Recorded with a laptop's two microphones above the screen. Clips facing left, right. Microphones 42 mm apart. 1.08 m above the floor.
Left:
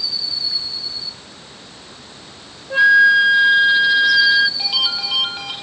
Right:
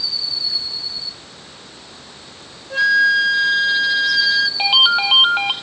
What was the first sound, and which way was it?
A flute, 15° left (ahead or behind).